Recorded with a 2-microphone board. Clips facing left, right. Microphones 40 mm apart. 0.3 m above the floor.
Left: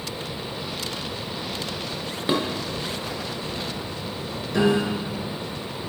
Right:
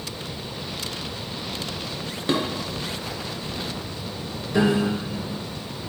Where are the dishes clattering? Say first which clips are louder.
Even; 10° left (ahead or behind), 0.9 m.